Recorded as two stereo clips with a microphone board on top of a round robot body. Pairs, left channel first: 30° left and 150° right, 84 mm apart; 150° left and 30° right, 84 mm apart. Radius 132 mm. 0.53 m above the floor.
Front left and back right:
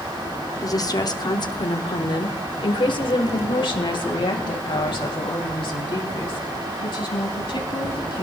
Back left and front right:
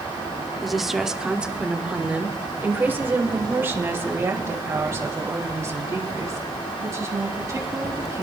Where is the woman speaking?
60° left, 1.6 m; by 8.2 s 20° left, 5.5 m.